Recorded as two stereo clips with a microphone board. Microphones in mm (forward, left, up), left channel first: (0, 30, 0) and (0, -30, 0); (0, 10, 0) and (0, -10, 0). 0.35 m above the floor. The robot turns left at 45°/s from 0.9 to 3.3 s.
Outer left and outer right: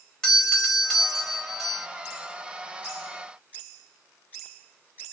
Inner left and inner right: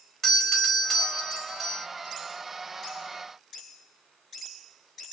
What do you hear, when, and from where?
0.2 s a doorbell: 10° left (ahead or behind), 1.3 m; by 1.9 s 5° right (ahead or behind), 1.3 m